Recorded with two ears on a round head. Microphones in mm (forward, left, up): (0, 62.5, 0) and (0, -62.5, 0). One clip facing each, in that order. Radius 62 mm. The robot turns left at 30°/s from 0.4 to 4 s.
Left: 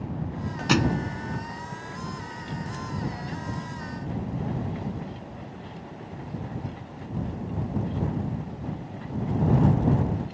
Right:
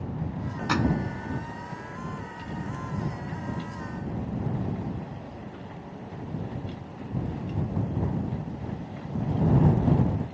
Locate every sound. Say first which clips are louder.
0.7 s a thud: left 2 dB; 30° left (ahead or behind); by 1.1 s 20° left (ahead or behind)